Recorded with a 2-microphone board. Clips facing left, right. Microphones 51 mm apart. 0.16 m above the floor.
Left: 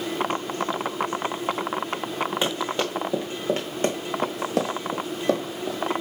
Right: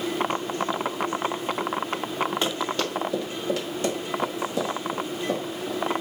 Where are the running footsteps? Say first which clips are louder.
Left 1 dB; 10° left (ahead or behind), 3 m; by 5.8 s 85° left, 3 m.